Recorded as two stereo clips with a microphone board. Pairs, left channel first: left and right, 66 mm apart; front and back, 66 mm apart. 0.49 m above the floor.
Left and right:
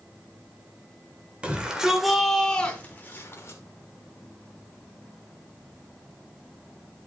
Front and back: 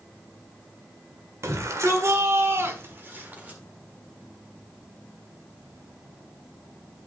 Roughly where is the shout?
Behind right.